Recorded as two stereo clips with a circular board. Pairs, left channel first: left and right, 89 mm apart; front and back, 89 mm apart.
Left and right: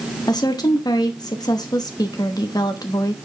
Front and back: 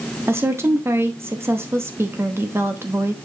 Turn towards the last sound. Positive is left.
turn(degrees=125)